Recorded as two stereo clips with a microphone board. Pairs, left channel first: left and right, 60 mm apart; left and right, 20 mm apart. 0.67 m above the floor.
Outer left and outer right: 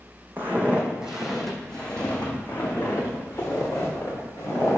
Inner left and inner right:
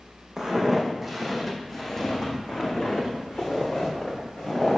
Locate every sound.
0.4 s footsteps: 35° right (ahead or behind), 1.6 m; by 4.8 s 50° left (ahead or behind), 3.5 m